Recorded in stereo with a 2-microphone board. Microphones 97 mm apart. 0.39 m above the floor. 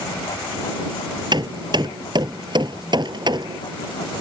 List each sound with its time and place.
1.3 s hammering: 50° right (ahead or behind)